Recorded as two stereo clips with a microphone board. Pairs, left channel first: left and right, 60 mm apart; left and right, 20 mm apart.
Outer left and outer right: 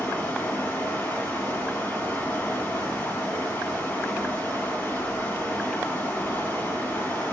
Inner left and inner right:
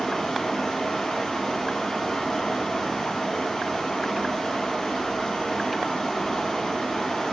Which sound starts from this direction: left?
Running water, at 0.0 s.